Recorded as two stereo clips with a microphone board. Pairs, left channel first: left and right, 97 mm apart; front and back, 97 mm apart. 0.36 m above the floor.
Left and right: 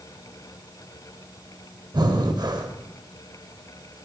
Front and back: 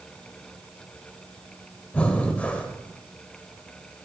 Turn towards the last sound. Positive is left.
turn(degrees=-70)